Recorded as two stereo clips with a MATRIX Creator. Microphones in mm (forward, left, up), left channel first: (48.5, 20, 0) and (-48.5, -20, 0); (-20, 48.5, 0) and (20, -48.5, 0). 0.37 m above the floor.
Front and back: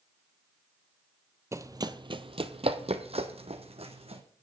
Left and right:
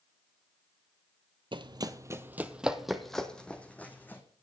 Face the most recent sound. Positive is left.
turn(degrees=-175)